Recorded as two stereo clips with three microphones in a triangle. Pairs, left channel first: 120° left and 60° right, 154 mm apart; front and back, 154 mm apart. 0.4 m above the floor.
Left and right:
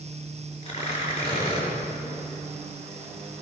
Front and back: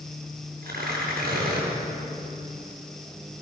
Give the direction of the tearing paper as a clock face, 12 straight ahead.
6 o'clock.